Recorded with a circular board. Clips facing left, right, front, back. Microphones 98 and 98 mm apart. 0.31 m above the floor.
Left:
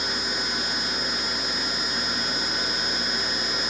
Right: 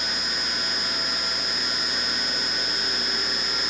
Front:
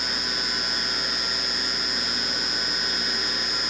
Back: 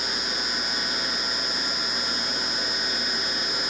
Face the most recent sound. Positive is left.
No sound to turn to.